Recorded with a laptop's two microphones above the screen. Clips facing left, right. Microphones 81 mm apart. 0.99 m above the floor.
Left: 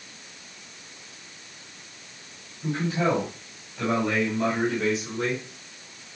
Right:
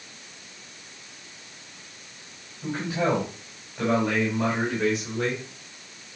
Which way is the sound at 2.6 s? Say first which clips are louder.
Left 1 dB; 10° right (ahead or behind).